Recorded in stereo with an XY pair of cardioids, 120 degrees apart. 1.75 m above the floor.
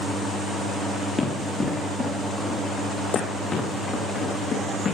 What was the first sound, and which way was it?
Running footsteps, 25° left.